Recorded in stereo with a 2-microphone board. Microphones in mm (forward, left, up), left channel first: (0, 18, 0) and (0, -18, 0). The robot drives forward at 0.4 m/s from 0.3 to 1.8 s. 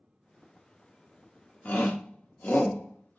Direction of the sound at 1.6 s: 45° left (ahead or behind).